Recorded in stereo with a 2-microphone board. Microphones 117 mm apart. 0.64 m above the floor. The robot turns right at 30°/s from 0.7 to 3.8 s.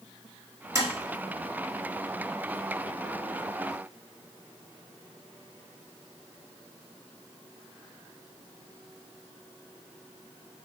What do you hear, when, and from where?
0.8 s tapping: 30° right (ahead or behind), 1.8 m; by 0.9 s 25° right (ahead or behind), 1.8 m